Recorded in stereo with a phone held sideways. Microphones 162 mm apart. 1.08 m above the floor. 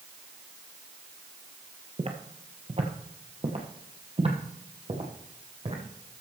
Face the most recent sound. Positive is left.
turn(degrees=-40)  # may be behind; listen again after turning